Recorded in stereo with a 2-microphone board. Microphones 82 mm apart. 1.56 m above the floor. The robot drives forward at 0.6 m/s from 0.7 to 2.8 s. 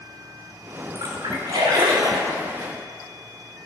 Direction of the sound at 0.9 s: 70° right (ahead or behind).